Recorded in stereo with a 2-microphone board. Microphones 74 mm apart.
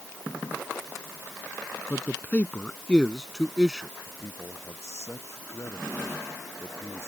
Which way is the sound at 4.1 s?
40° left (ahead or behind).